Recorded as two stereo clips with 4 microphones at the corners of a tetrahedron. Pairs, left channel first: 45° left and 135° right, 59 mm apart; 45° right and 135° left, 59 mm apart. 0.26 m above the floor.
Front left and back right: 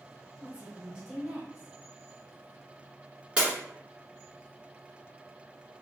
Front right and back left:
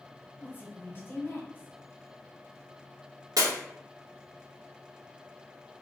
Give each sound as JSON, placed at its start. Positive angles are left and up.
{"t": 0.4, "sound": "a woman speaking", "azimuth_deg": -65, "distance_m": 1.4}
{"t": 3.4, "sound": "breaking glass", "azimuth_deg": 150, "distance_m": 1.5}